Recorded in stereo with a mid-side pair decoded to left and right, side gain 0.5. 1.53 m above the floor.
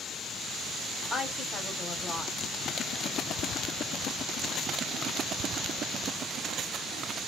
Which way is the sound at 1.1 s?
30° left.